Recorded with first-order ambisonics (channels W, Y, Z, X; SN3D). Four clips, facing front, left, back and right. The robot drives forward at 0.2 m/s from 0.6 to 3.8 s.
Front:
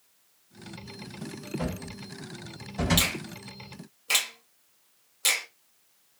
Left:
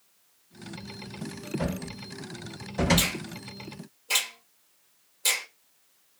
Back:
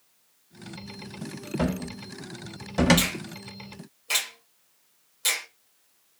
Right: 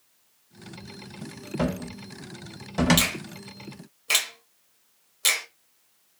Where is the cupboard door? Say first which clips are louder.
Right 7 dB, back 9 dB; 130° right, 0.5 m; by 3.1 s 150° right, 0.7 m.